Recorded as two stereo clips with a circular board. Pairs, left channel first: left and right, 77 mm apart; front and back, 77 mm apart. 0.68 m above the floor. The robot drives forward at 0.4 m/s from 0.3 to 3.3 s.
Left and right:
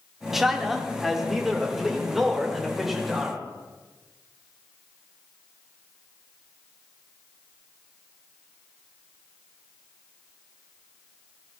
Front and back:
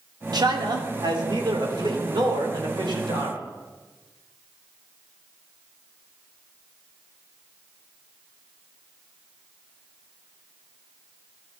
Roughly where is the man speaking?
Behind.